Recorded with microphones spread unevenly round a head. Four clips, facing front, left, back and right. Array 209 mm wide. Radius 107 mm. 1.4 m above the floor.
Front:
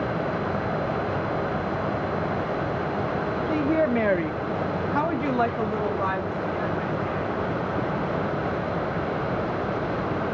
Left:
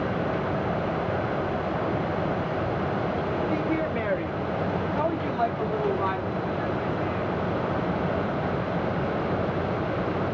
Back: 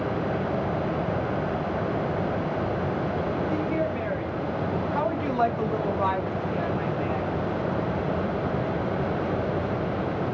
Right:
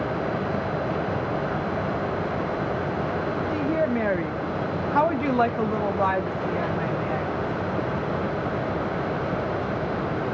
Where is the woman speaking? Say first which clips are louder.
Right 2 dB, front 4 dB; 10° right, 1.8 m; by 7.3 s 95° right, 4.5 m.